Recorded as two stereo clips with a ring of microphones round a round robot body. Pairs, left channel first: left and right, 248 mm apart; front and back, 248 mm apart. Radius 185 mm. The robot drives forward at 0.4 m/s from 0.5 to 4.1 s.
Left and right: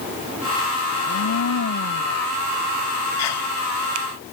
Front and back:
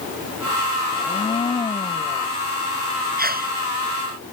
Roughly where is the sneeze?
Behind left.